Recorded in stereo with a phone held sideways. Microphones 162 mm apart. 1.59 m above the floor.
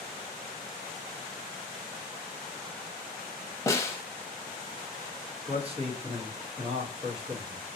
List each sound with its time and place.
3.7 s a snare drum: 20° left (ahead or behind), 0.7 m
5.5 s a man speaking: 35° right (ahead or behind), 1.1 m